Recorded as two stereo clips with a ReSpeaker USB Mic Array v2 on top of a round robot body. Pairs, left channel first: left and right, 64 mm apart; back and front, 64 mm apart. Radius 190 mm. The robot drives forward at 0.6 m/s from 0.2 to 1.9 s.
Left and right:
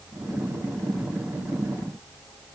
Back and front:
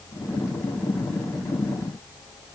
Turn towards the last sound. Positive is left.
No sound to turn to.